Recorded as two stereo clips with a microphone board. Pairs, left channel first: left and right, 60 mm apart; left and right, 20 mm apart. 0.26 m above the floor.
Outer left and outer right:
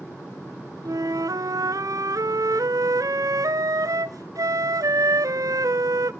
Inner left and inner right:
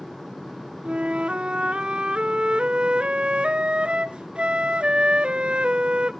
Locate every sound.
0.8 s a flute: 90° right, 0.6 m